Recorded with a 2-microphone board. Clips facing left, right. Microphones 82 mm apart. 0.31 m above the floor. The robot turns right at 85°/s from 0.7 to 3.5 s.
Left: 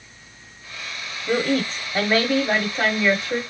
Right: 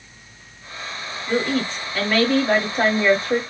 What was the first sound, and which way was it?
A woman speaking, 75° left.